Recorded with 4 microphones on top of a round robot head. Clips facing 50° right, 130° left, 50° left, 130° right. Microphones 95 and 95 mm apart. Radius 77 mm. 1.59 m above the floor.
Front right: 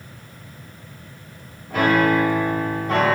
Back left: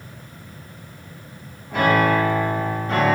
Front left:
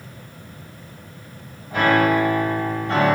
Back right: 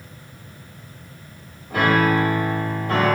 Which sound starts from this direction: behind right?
A piano, at 1.7 s.